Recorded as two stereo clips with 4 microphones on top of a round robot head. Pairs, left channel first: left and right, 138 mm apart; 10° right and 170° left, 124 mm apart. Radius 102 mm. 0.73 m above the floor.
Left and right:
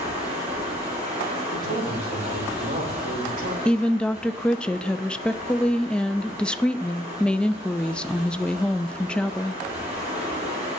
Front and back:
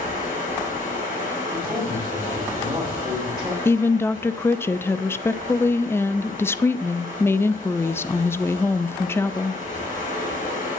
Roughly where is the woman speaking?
Ahead.